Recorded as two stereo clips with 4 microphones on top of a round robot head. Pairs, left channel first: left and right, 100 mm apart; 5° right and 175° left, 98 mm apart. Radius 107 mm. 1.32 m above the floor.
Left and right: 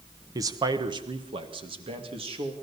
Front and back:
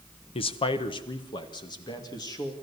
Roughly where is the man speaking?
Ahead right.